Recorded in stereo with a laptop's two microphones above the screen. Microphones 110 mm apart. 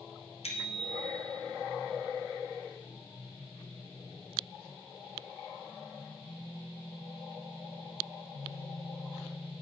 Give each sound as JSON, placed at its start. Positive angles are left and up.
{"t": 0.4, "sound": "a bicycle bell", "side_deg": 75, "distance_m": 2.5}